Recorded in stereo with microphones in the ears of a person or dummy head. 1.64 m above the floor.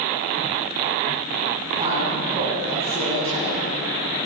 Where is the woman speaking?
30° right (ahead or behind), 9.5 m.